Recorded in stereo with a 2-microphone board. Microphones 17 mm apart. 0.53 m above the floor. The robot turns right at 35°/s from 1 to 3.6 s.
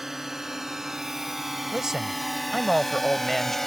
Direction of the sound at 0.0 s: 25° right (ahead or behind).